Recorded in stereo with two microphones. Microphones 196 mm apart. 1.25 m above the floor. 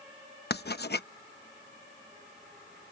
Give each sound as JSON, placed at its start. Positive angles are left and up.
{"t": 0.5, "sound": "writing", "side_deg": 55}